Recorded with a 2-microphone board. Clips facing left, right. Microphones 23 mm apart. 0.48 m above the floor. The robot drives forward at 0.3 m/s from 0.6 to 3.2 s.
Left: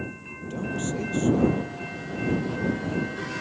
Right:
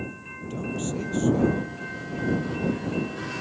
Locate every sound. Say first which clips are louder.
0.3 s a man speaking: left 1 dB; 5° left (ahead or behind); by 1.8 s centre (ahead or behind)